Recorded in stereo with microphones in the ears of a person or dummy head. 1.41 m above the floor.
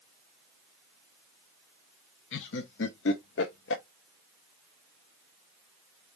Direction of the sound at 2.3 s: 60° left (ahead or behind).